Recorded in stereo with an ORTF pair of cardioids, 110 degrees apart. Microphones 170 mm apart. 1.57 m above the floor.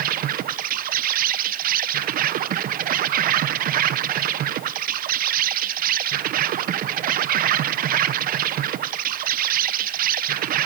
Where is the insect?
55° right, 1.1 m.